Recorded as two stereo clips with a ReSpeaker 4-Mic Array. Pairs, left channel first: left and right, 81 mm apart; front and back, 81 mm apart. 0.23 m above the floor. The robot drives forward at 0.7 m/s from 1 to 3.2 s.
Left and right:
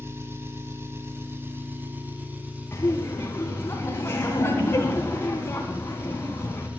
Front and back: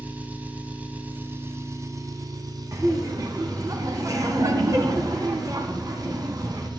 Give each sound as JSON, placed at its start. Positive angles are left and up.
{"t": 0.0, "sound": "an engine running", "azimuth_deg": -120, "distance_m": 1.4}
{"t": 2.7, "sound": "laughter", "azimuth_deg": 135, "distance_m": 1.9}